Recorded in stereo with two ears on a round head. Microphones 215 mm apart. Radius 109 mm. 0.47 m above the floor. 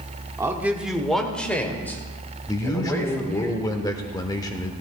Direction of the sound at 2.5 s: 15° left (ahead or behind).